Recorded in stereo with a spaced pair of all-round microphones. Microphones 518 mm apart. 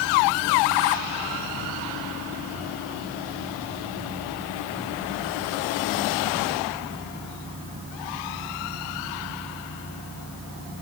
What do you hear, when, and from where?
Only background noise.